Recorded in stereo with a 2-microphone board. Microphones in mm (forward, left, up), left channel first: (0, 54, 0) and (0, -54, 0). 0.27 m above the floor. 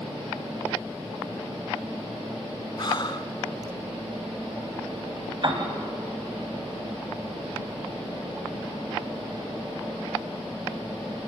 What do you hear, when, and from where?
2.8 s breathing: 45° left (ahead or behind), 0.9 m
5.4 s a piano: 45° right (ahead or behind), 2 m